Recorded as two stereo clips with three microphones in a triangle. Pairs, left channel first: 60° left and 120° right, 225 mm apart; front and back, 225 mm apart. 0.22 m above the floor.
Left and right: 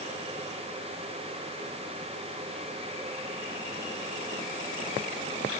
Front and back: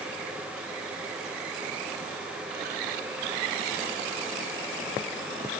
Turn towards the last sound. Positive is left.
No sound to turn to.